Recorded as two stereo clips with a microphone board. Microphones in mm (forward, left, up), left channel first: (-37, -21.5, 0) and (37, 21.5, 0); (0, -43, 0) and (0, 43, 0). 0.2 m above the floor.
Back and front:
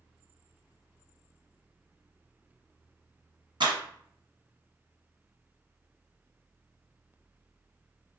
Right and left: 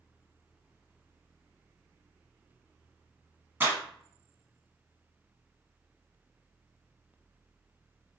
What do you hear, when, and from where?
3.6 s a clap: 25° left, 1.9 m